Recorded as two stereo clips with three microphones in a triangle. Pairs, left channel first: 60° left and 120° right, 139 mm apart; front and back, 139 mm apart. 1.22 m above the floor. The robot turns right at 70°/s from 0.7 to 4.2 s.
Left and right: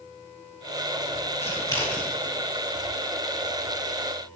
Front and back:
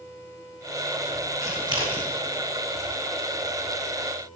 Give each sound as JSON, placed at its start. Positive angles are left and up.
{"t": 1.4, "sound": "scissors", "azimuth_deg": 105, "distance_m": 3.5}